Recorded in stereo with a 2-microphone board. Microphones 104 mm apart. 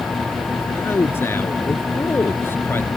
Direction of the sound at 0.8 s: 20° left (ahead or behind).